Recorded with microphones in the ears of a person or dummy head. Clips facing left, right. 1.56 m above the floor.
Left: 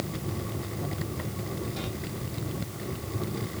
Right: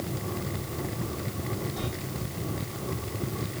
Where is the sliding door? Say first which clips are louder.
Right 1 dB; 35° left (ahead or behind), 2.5 m.